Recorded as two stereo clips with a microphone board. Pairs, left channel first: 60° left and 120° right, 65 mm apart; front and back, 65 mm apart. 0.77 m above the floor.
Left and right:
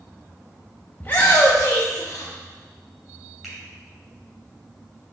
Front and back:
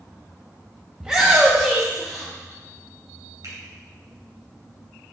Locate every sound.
1.0 s a shout: 115° left, 0.7 m; by 2.3 s 95° left, 1.5 m
3.4 s a finger snap: 155° left, 3 m